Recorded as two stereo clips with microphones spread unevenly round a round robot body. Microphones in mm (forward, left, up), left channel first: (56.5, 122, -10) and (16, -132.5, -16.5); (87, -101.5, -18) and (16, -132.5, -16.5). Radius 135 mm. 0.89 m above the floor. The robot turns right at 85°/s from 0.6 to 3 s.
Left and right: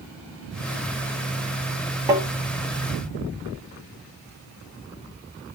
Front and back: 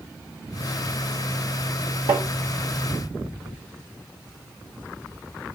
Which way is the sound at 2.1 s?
175° right.